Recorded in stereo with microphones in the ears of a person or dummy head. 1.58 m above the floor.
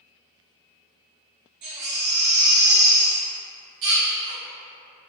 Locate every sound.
1.6 s a baby crying: 55° right (ahead or behind), 1.6 m